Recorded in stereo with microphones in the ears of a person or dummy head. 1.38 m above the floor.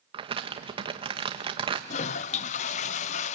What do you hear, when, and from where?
0.1 s crumpling: 25° right (ahead or behind), 1.0 m
1.9 s a toilet flushing: 30° left (ahead or behind), 0.5 m